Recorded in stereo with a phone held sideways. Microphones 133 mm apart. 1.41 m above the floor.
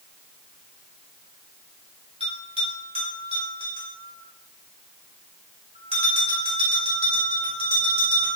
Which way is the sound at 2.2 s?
45° right (ahead or behind).